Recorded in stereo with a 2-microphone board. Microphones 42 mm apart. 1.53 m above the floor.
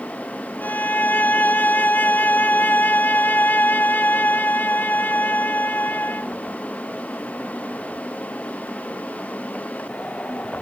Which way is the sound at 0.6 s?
50° left (ahead or behind).